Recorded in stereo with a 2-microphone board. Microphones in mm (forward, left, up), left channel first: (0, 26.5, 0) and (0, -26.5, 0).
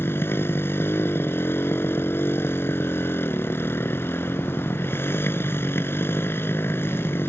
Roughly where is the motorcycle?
Left.